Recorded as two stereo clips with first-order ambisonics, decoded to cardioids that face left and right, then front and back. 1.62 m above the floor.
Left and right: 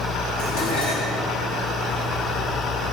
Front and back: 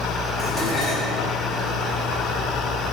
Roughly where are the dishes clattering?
Left.